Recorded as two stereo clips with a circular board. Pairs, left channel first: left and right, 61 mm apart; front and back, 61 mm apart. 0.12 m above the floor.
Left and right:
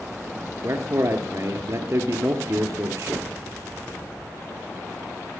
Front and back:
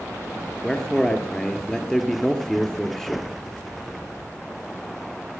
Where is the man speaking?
80° right, 1.9 m.